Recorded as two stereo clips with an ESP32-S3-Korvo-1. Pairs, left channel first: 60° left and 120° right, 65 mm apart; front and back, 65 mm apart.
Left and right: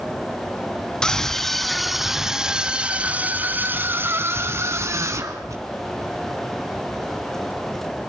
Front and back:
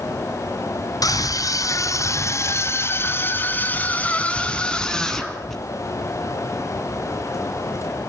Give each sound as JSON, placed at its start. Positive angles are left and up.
{"t": 1.0, "sound": "a scream", "azimuth_deg": -20, "distance_m": 3.5}